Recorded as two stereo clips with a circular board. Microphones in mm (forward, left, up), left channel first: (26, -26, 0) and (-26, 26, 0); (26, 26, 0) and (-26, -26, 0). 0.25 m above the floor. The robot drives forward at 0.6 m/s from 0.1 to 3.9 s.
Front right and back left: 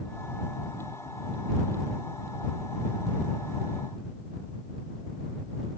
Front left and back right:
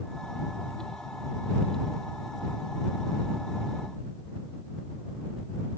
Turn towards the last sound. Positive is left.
No sound to turn to.